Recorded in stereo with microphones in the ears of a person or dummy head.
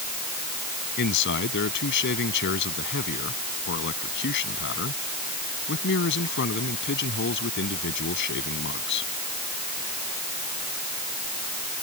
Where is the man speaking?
65° left (ahead or behind).